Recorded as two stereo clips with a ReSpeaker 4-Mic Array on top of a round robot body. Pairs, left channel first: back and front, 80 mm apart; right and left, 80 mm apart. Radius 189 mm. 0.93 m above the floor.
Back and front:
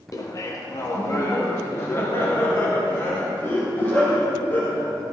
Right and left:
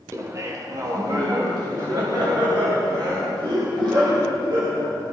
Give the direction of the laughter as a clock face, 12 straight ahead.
7 o'clock.